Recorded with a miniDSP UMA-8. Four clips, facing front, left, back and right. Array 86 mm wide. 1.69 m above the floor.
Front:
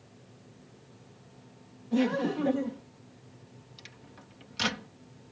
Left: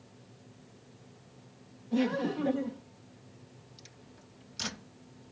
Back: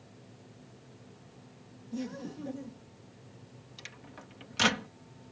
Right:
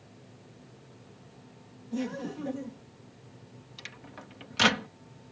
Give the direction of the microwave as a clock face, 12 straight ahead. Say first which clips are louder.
Right 8 dB, back 5 dB; 4 o'clock.